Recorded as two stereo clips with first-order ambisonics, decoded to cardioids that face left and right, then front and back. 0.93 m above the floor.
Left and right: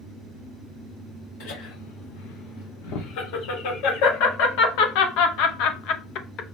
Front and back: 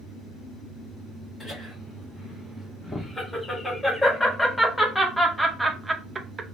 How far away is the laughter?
About 3 m.